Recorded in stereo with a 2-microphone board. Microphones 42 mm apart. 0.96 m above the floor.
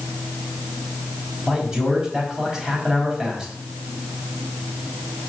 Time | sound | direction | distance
1.5 | a man speaking | 15° right (ahead or behind) | 4.5 m